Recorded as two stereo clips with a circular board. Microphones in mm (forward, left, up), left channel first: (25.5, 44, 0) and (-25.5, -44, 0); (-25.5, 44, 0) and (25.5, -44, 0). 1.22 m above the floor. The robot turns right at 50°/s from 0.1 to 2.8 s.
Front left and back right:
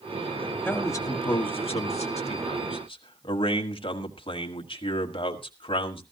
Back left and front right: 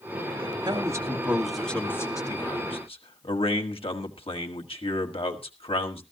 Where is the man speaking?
15° right, 1.5 m; by 6.0 s 95° left, 1.5 m.